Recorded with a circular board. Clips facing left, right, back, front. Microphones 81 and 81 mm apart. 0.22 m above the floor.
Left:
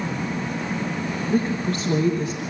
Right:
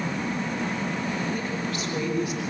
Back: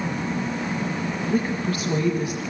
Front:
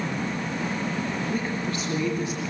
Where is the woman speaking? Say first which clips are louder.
Left 6 dB, back 4 dB; 105° left, 4.5 m.